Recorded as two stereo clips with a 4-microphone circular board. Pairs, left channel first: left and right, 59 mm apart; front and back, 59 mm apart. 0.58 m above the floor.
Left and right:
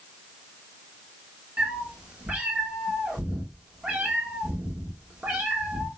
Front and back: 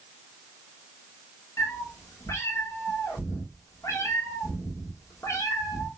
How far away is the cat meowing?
About 1.1 m.